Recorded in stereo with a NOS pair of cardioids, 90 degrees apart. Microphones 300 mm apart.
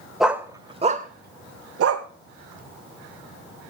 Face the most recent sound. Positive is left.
turn(degrees=-60)